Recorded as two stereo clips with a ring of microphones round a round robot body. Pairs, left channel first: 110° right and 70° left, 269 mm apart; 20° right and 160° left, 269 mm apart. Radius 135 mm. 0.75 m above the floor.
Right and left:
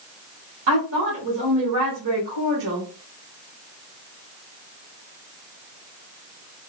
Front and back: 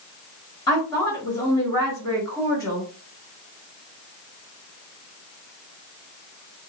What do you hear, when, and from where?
0.7 s a woman speaking: 50° left, 1.5 m